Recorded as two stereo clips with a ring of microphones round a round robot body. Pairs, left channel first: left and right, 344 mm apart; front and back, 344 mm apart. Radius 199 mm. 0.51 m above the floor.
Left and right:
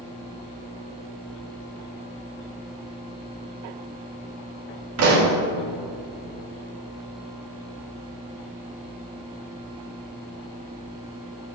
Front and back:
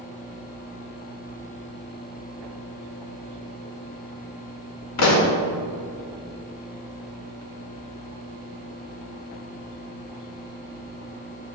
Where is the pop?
40° right, 1.3 m.